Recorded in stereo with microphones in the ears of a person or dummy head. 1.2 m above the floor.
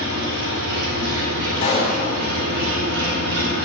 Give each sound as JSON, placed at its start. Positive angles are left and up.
{"t": 0.0, "sound": "an engine running", "side_deg": -70, "distance_m": 2.5}
{"t": 1.6, "sound": "a pop", "side_deg": 40, "distance_m": 4.0}